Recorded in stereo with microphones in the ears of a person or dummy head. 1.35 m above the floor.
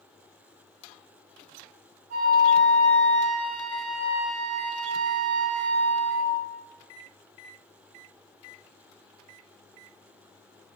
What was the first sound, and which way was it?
A flute, 50° right (ahead or behind).